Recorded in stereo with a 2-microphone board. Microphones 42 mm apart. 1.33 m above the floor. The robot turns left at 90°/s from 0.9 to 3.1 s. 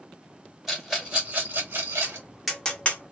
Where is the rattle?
5° right (ahead or behind), 2 m; by 2.3 s 50° right (ahead or behind), 2 m.